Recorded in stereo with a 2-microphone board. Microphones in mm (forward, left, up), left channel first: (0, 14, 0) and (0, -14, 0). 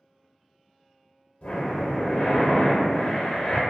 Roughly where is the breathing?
Left.